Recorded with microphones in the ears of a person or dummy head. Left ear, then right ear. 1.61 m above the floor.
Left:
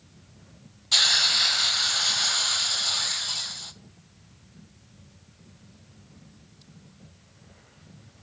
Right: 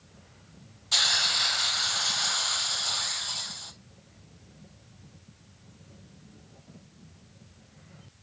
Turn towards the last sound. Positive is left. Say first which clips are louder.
# left 4 dB
turn(degrees=0)  # may be behind; listen again after turning